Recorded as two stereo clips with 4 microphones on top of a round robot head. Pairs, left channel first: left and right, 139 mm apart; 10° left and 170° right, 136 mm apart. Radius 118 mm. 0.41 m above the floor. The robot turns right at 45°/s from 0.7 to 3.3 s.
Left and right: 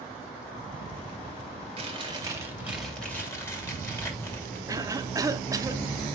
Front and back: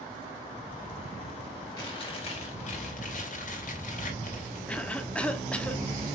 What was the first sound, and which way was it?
Chewing, 50° right.